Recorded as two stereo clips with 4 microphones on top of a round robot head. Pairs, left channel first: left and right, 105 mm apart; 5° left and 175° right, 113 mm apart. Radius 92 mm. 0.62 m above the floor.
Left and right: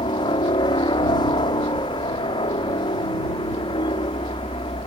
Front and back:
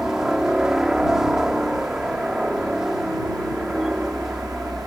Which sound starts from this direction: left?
A helicopter, at 0.0 s.